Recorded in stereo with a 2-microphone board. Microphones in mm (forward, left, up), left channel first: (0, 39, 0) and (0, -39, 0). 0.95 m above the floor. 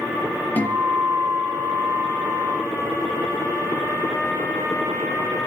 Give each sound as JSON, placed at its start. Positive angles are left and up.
{"t": 0.6, "sound": "a guitar", "side_deg": 20, "distance_m": 4.5}